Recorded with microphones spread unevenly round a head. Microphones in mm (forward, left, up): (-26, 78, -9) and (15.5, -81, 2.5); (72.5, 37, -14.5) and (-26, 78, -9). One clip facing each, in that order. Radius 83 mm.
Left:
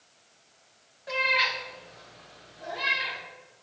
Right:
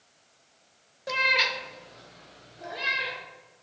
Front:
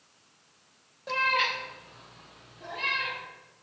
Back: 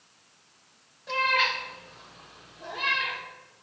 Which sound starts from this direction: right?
A cat meowing, at 1.1 s.